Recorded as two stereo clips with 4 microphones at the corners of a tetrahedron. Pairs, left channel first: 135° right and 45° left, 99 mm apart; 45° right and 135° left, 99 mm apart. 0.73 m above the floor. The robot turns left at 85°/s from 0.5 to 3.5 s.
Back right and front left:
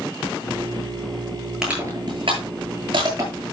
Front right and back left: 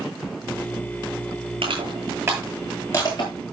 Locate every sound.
1.6 s crushing: 130° left, 9.5 m; by 3.3 s 15° right, 9.5 m